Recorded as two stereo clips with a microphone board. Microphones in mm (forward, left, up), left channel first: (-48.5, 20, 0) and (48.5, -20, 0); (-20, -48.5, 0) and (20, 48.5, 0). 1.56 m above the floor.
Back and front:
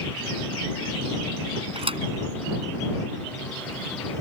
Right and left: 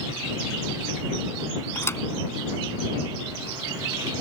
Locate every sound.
1.8 s a thud: 50° right